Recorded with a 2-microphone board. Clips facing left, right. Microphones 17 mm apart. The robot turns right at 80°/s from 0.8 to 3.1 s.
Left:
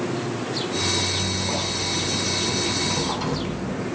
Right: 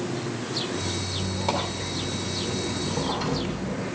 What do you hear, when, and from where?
1.1 s a squeak: 165° right, 2.5 m; by 3.9 s straight ahead, 2.5 m